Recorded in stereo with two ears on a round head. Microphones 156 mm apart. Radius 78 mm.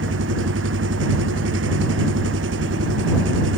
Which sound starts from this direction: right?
An engine running, at 0.0 s.